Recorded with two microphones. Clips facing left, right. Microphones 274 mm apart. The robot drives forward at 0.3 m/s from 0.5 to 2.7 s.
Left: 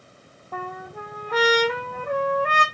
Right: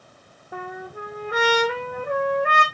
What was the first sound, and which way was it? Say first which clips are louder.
A trumpet: right 1 dB; 15° right (ahead or behind).